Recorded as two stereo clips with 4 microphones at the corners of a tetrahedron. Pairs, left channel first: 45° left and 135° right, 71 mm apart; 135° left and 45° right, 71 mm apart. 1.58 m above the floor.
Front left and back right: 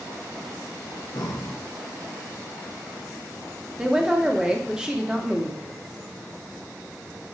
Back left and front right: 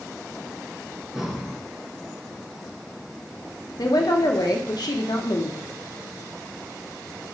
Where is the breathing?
40° left, 1.0 m.